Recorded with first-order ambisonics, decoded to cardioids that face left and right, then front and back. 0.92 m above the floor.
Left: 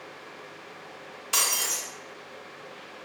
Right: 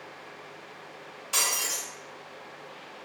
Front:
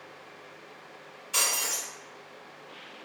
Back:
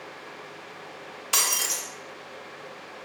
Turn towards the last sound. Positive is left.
turn(degrees=165)